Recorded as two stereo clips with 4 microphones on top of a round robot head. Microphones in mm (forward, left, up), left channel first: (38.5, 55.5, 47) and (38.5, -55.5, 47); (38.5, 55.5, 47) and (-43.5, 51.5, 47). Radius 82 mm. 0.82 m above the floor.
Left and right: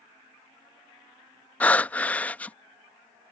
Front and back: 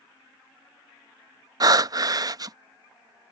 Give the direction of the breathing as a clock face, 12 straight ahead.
7 o'clock.